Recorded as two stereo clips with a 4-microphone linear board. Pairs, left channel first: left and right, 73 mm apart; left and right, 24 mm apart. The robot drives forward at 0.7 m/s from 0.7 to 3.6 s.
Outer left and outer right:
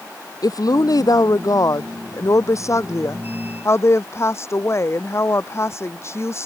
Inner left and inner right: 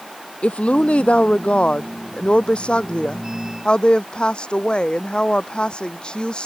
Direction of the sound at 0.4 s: 60° left (ahead or behind).